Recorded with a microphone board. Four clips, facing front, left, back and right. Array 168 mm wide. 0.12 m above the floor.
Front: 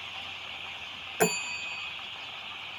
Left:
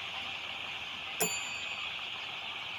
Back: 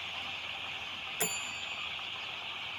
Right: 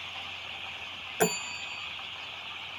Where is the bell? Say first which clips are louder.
Right 10 dB, front 13 dB; 35° right.